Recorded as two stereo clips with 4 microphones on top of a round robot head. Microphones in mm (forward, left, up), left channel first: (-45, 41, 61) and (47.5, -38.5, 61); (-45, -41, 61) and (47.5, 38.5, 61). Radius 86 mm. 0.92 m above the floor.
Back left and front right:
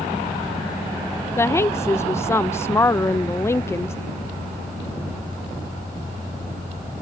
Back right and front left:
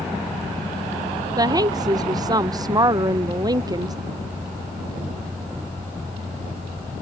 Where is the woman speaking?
80° left.